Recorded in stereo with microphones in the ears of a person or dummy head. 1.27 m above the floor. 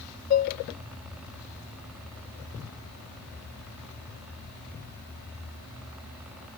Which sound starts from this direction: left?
Dishes clattering, at 0.3 s.